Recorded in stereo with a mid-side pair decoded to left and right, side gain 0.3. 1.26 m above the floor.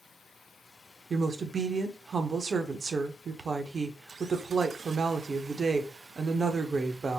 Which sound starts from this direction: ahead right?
A woman speaking, at 1.1 s.